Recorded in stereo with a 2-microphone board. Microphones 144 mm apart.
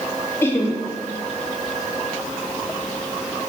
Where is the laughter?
15° left (ahead or behind), 1.0 m.